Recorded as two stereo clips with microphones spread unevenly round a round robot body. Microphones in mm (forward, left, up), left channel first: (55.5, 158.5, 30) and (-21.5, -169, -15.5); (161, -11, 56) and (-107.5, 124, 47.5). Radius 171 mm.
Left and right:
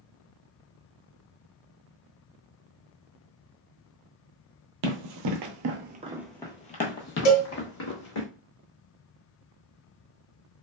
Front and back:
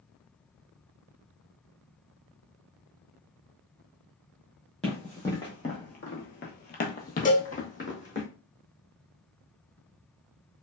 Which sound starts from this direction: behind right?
Running footsteps, at 4.8 s.